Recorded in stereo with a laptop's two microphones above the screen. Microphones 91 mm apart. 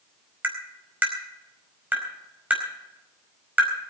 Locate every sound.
0.4 s tapping: 15° right (ahead or behind), 4.5 m